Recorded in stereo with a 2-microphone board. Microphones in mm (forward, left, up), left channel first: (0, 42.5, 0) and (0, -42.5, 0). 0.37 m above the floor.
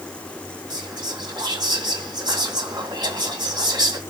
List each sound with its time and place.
0.7 s whispering: 60° right (ahead or behind), 2.0 m